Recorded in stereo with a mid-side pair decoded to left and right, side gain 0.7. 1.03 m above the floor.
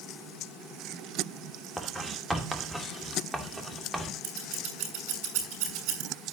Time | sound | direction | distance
1.8 | writing | 5° right | 2.5 m
4.2 | scissors | 65° right | 6 m